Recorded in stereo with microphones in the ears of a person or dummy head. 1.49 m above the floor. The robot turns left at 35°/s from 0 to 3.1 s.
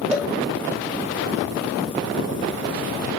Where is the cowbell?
5° right (ahead or behind), 0.7 m; by 0.3 s 10° right (ahead or behind), 0.7 m.